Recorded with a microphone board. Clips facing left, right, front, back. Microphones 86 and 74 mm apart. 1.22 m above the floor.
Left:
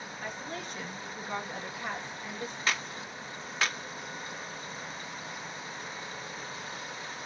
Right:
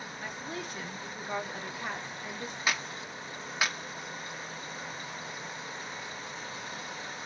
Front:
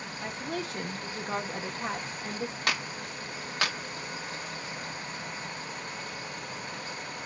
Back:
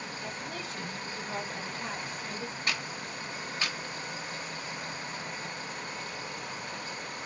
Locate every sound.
0.2 s a woman speaking: 5° right, 1.9 m
2.7 s a clap: 10° right, 1.6 m